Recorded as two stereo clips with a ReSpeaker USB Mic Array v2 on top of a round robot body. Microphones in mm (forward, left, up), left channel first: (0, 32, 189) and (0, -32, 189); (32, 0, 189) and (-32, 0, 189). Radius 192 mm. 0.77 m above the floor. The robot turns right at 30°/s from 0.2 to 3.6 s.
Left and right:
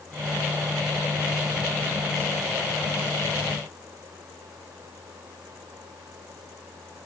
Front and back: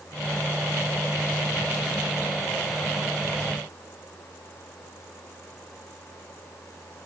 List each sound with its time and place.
Only background noise.